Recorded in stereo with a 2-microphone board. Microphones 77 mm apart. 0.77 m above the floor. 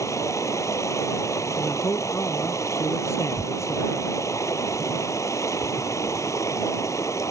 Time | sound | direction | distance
0.0 | running water | 45° left (ahead or behind) | ?
1.6 | a man speaking | 40° left (ahead or behind) | ?
3.4 | tearing paper | 10° left (ahead or behind) | ?